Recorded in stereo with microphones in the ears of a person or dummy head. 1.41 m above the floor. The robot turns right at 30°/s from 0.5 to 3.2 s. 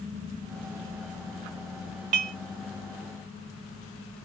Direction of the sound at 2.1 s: 35° right (ahead or behind).